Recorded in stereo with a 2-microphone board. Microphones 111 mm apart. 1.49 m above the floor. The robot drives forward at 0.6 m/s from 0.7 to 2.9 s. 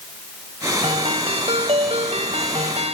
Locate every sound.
0.8 s a ringtone: 60° right (ahead or behind); by 3.0 s 75° right (ahead or behind)